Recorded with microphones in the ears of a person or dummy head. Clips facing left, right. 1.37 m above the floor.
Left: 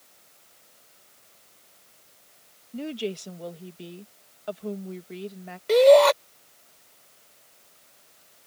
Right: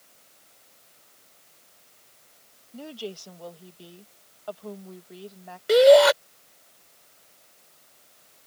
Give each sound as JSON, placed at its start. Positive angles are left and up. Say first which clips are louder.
{"t": 2.7, "sound": "a woman speaking", "louder": "left 6 dB", "side_deg": 25}
{"t": 5.7, "sound": "a shout", "louder": "right 1 dB", "side_deg": -10}